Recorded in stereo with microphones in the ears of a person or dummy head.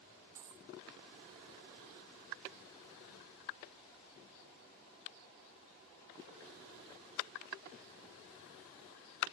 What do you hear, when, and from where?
0.3 s a dropped coin: 5° right (ahead or behind)